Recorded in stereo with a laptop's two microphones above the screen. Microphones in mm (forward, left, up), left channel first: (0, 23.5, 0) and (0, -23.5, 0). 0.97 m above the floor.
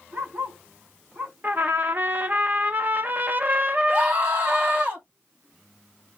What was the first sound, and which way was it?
A dog barking, 40° right (ahead or behind).